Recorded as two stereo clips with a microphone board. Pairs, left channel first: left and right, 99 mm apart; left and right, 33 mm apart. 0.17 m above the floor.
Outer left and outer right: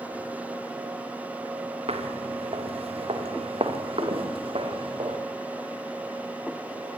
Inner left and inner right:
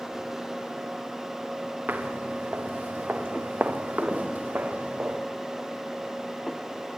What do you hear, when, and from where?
1.9 s footsteps: 85° right, 5.5 m; by 5.2 s 60° right (ahead or behind), 6 m